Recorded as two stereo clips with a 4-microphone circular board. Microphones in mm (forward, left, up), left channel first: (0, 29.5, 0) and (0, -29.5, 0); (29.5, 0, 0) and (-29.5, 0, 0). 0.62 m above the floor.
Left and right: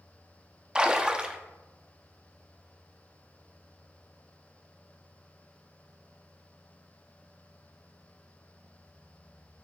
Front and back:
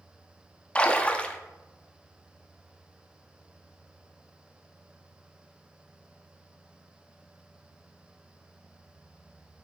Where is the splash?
35° right, 0.6 m.